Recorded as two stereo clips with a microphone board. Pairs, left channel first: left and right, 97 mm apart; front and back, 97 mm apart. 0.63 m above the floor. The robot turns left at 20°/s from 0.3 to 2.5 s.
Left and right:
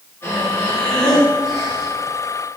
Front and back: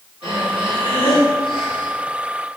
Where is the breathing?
25° left, 4.5 m; by 1.9 s 10° right, 4.5 m.